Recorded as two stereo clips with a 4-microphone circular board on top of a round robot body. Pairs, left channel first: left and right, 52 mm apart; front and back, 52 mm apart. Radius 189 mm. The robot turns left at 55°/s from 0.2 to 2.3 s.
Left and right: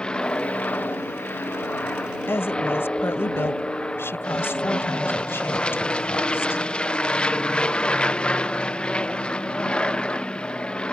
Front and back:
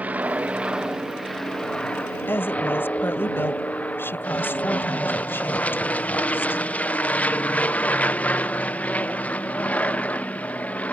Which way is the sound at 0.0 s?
150° left.